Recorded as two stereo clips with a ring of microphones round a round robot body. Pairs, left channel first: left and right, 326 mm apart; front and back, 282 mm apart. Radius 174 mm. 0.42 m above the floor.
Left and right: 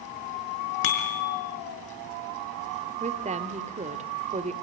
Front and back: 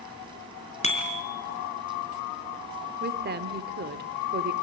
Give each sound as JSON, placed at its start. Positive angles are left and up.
{"t": 0.8, "sound": "a bicycle bell", "azimuth_deg": 65, "distance_m": 4.5}
{"t": 3.0, "sound": "a woman speaking", "azimuth_deg": -150, "distance_m": 1.6}